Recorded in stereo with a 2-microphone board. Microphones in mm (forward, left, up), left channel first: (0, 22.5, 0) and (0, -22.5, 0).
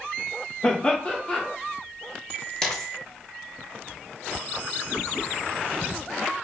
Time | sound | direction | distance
0.6 | laughter | 20° left (ahead or behind) | 0.7 m
2.6 | a dropped coin | 15° left (ahead or behind) | 0.7 m